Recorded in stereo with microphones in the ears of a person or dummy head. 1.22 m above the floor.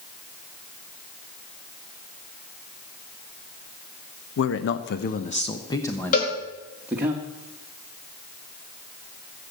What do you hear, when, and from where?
4.4 s a man speaking: 70° left (ahead or behind), 0.9 m; by 7.1 s 10° right (ahead or behind), 1.5 m
6.1 s a cowbell: 45° left (ahead or behind), 4 m